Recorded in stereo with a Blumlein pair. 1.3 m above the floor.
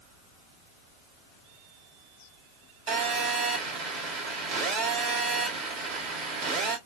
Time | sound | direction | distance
2.9 | a phone buzzing | 45° right | 1.1 m